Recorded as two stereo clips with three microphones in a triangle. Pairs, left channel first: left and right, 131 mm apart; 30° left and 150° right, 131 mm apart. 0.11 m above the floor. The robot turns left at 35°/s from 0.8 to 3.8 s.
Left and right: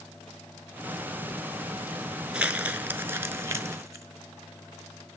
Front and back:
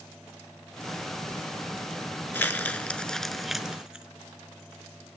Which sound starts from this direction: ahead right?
Crumpling, at 2.3 s.